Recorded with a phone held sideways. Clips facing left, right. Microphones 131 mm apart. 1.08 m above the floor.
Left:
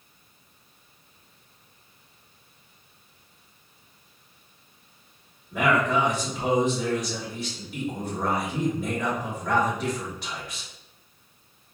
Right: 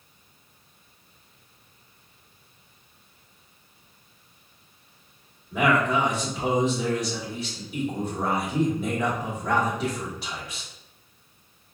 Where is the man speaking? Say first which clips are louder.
Right 1 dB; 5° right (ahead or behind), 1.3 m.